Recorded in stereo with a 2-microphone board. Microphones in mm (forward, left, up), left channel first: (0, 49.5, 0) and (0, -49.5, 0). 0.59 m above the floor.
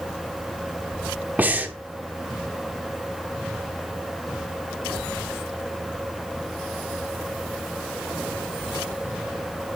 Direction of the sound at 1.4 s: 20° right (ahead or behind).